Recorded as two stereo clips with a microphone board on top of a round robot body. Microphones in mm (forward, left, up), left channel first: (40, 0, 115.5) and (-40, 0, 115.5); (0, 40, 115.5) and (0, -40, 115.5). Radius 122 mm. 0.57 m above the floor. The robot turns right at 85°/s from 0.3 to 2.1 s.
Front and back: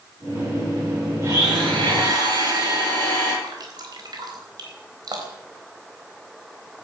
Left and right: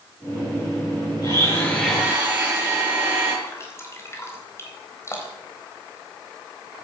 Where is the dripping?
150° left, 4 m.